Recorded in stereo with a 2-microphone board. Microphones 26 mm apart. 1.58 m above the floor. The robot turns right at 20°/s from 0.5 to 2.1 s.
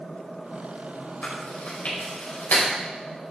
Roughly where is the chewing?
Left.